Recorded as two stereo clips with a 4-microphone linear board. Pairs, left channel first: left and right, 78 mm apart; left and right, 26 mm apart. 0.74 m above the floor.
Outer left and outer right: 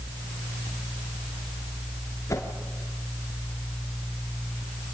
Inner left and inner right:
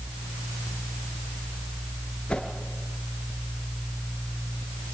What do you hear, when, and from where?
2.3 s a whoosh: 40° left (ahead or behind), 3.5 m